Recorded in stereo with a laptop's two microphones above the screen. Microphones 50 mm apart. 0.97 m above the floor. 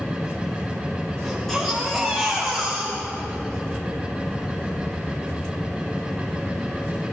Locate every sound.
0.0 s a machine running: 10° right (ahead or behind), 3.5 m
1.2 s a baby crying: 5° left (ahead or behind), 3.5 m